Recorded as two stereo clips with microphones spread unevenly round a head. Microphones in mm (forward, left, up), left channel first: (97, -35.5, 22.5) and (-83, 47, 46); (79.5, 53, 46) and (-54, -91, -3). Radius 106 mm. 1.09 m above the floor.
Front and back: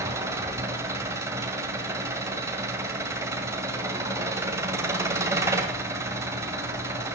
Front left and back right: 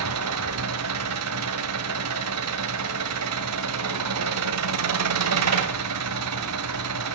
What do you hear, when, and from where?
0.0 s an engine running: 130° right, 1.8 m